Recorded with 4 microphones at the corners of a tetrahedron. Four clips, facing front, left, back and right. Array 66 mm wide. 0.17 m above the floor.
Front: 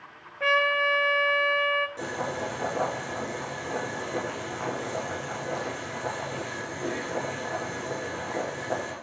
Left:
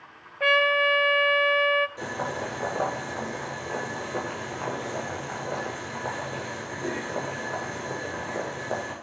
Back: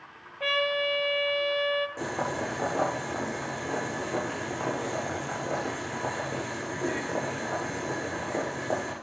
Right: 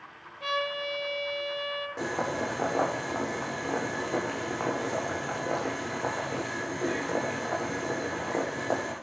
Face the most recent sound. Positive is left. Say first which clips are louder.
# right 1 dB, back 1 dB
turn(degrees=-120)